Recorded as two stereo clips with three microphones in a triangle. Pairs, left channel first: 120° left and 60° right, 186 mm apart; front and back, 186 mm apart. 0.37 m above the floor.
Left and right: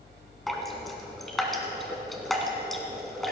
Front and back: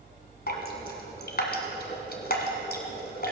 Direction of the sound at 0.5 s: 30° left.